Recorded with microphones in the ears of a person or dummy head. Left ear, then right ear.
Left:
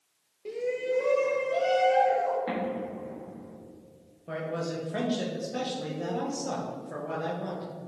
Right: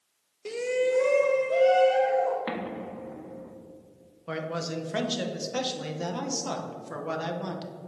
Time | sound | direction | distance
0.5 | a shout | 40° right (ahead or behind) | 0.7 m
2.5 | an explosion | 45° right (ahead or behind) | 1.6 m
4.3 | a man speaking | 40° right (ahead or behind) | 1.2 m